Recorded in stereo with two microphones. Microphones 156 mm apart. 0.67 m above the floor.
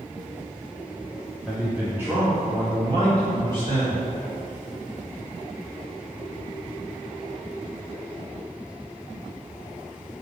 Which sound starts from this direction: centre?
A man speaking, at 1.5 s.